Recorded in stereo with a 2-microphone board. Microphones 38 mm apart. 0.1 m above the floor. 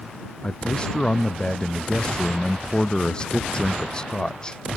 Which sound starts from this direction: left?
A man speaking, at 0.4 s.